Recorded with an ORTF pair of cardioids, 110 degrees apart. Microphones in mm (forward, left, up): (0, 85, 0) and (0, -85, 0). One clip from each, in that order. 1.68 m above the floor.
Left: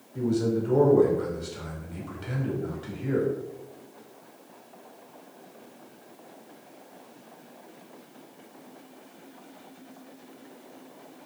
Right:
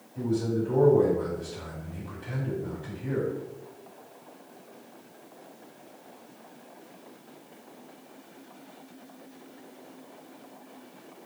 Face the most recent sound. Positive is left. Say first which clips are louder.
# left 2 dB
turn(degrees=50)